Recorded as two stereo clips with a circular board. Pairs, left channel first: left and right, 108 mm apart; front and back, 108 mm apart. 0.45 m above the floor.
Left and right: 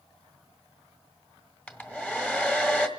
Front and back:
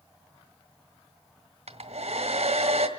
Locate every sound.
1.7 s a hair dryer: 170° left, 1.7 m